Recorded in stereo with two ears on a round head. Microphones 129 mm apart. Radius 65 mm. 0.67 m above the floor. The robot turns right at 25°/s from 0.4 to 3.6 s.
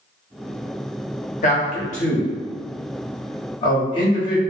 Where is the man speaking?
50° left (ahead or behind), 1.0 m; by 4.4 s 30° left (ahead or behind), 1.0 m.